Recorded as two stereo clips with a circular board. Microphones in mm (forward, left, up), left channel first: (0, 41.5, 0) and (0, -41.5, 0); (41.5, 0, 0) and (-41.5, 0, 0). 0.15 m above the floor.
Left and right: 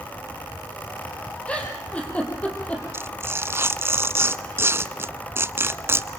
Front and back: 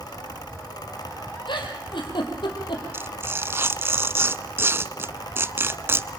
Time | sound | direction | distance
1.5 | a giggle | 15° left | 4.5 m
2.9 | tearing paper | 135° right | 0.8 m